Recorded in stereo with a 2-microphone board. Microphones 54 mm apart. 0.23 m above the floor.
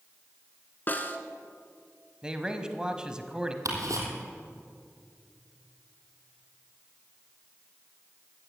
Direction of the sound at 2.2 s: 15° right (ahead or behind).